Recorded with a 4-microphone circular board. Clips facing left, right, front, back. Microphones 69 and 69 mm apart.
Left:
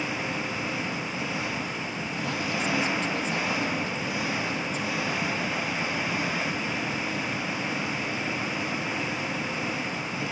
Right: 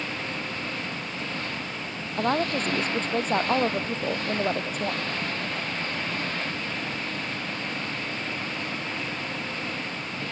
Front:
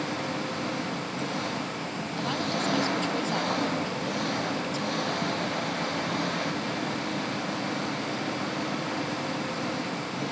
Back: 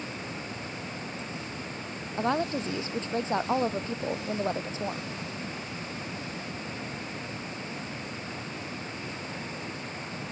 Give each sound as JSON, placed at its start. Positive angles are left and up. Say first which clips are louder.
{"t": 0.0, "sound": "an engine running", "louder": "left 2 dB, front 7 dB", "azimuth_deg": 10}
{"t": 2.2, "sound": "a woman speaking", "louder": "right 6 dB, back 3 dB", "azimuth_deg": -120}